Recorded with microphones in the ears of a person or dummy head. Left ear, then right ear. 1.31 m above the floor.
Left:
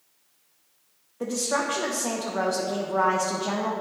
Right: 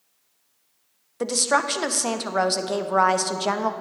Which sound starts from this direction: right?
A woman speaking, at 1.2 s.